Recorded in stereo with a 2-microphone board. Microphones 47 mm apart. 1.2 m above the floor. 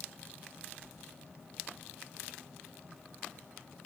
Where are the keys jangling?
30° left (ahead or behind), 5.5 m.